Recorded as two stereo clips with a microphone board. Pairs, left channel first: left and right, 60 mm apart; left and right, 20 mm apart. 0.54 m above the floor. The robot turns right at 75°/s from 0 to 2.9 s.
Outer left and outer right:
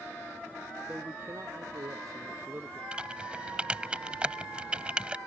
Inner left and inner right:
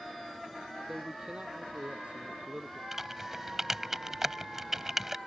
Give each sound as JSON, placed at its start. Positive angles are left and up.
{"t": 0.9, "sound": "a man speaking", "azimuth_deg": -165}
{"t": 2.9, "sound": "typing on a keyboard", "side_deg": -20}